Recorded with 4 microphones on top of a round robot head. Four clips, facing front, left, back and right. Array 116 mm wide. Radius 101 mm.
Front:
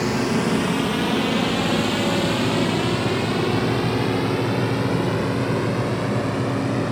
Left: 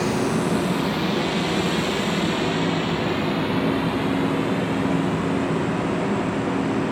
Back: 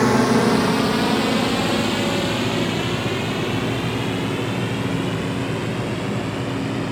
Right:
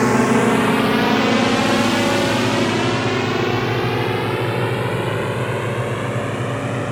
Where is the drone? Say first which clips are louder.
Right 7 dB, back 5 dB; 130° right; by 6.9 s 60° right.